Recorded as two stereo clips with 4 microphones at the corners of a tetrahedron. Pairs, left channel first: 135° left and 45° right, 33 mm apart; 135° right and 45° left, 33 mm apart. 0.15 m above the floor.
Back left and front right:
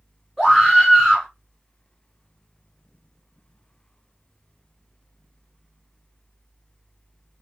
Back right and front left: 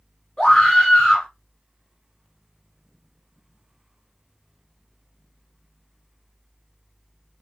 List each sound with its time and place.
0.4 s a scream: 105° right, 1.4 m